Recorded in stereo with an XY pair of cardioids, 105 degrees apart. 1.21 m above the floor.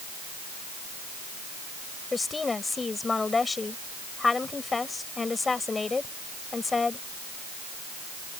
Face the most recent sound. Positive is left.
turn(degrees=25)